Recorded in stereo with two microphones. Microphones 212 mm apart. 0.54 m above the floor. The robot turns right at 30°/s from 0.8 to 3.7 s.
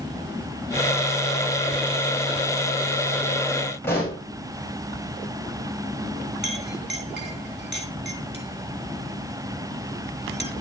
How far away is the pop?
About 9 m.